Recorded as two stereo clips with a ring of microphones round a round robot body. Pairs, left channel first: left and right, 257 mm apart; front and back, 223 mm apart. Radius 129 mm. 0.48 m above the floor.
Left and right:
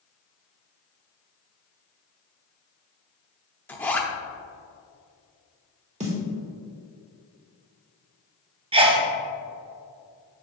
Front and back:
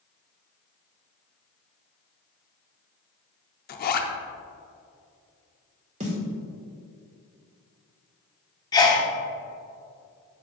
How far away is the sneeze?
About 0.7 m.